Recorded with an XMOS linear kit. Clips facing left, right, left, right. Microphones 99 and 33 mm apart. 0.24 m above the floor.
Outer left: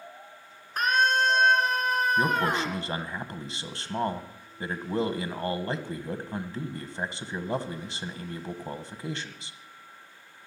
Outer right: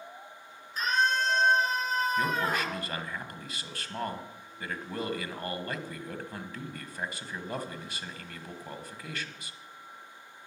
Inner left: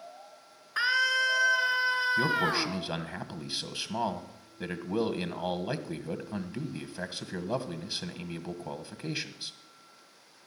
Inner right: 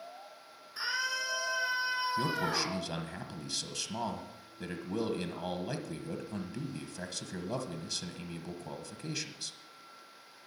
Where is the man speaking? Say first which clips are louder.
Outer left 4 dB, inner left 5 dB; 25° left (ahead or behind), 1.3 m.